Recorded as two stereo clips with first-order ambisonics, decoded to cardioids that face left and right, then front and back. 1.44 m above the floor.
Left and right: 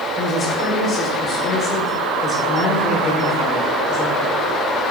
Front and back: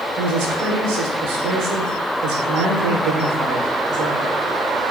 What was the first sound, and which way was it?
A woman speaking, 160° left.